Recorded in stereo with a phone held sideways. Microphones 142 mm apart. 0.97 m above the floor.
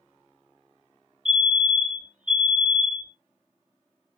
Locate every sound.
1.2 s a fire alarm: 15° right (ahead or behind), 2.0 m